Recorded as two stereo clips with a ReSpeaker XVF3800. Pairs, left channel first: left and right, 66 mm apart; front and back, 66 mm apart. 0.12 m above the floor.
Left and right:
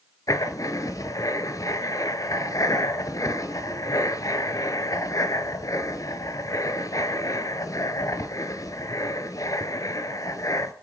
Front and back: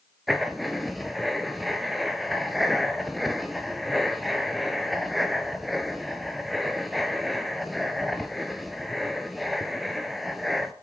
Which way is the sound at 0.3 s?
90° left.